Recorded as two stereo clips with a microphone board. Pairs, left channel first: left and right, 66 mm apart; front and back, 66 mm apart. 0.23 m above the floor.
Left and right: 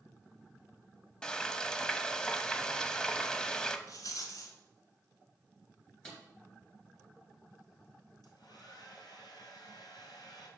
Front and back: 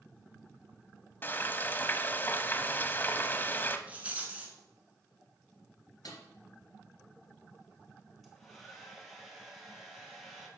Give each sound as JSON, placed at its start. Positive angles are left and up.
{"t": 1.2, "sound": "frying", "azimuth_deg": 20, "distance_m": 0.7}
{"t": 3.9, "sound": "a rattle", "azimuth_deg": 115, "distance_m": 1.6}
{"t": 6.0, "sound": "a snare drum", "azimuth_deg": 10, "distance_m": 2.5}
{"t": 8.2, "sound": "a hair dryer", "azimuth_deg": 85, "distance_m": 2.0}